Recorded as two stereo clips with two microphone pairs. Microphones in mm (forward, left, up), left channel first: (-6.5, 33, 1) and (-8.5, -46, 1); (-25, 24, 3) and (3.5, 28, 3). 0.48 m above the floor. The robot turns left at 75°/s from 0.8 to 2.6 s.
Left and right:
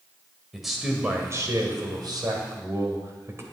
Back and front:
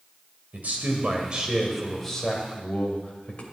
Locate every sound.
0.5 s a man speaking: 5° right, 2 m; by 3.4 s 140° right, 2 m